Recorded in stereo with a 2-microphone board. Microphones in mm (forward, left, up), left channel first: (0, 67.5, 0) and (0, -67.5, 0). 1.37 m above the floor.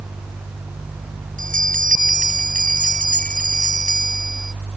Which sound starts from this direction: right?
A bell, at 1.4 s.